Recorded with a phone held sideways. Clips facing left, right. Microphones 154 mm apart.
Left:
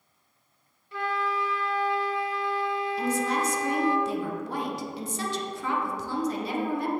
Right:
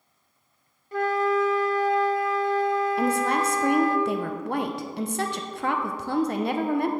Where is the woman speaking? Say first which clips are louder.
Right 3 dB; 65° right (ahead or behind), 0.7 m.